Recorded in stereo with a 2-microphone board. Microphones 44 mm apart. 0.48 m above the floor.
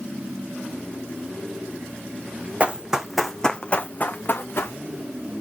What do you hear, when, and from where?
2.6 s running footsteps: 25° right (ahead or behind), 1.3 m; by 4.8 s 55° left (ahead or behind), 2 m